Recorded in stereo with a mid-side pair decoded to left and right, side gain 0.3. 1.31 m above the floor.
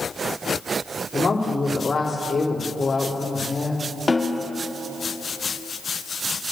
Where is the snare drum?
30° left, 1.8 m.